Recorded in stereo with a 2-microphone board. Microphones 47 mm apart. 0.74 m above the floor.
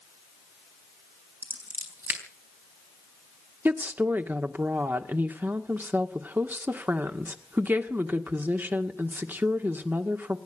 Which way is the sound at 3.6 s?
45° right (ahead or behind).